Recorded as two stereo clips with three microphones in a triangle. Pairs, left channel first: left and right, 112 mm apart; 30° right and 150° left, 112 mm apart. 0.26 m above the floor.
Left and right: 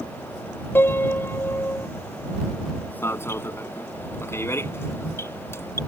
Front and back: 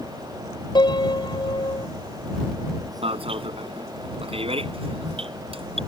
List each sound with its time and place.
0.8 s a piano: 20° left
3.0 s an alarm: 150° left